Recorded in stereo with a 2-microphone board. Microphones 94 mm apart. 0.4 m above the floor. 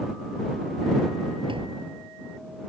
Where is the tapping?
70° right (ahead or behind).